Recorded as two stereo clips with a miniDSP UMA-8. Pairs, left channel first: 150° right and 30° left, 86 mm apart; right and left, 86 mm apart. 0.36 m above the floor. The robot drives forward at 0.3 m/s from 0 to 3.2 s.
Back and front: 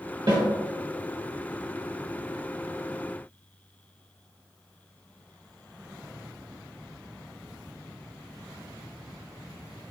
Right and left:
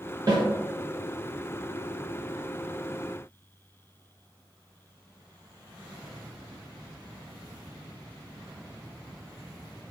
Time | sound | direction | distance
0.3 | a snare drum | 50° left | 1.9 m